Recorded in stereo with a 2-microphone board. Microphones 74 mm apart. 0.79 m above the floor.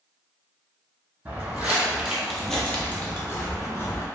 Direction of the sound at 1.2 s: 25° right (ahead or behind).